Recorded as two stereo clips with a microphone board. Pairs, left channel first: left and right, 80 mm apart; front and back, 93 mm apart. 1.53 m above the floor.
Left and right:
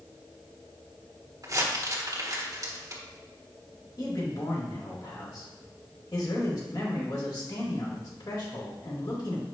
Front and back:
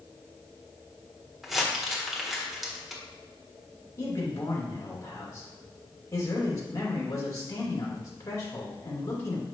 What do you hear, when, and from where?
1.4 s crumpling: 95° right, 1.5 m
4.0 s a man speaking: 55° left, 2.5 m